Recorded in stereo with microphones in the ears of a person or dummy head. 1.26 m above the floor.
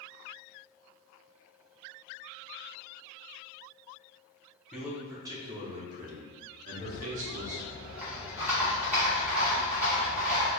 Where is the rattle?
10° right (ahead or behind), 1.4 m.